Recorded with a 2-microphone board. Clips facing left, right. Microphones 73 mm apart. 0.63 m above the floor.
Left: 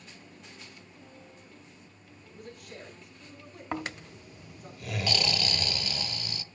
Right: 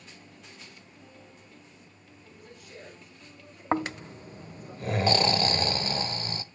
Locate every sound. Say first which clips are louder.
2.3 s a man speaking: left 3 dB; 55° left (ahead or behind), 7 m; by 4.7 s 65° left (ahead or behind), 7 m
3.7 s snoring: right 7 dB; 35° right (ahead or behind), 0.5 m